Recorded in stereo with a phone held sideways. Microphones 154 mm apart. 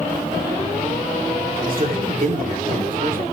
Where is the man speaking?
65° right (ahead or behind), 3 m.